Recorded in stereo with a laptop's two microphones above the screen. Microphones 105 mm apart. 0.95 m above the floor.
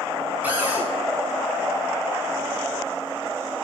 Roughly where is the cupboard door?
Centre.